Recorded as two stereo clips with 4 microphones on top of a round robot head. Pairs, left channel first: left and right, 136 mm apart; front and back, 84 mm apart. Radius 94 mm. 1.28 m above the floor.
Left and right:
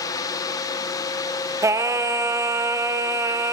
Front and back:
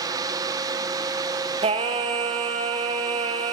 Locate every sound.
1.6 s singing: 160° right, 0.6 m